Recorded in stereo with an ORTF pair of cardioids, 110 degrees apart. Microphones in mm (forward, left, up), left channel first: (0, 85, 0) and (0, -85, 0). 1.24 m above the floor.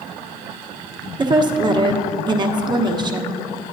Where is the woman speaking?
25° right, 1.1 m.